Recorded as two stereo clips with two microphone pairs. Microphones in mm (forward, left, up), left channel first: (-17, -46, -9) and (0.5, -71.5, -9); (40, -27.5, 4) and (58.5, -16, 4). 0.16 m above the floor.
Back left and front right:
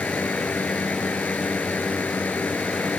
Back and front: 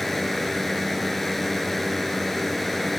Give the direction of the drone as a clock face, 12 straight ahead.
7 o'clock.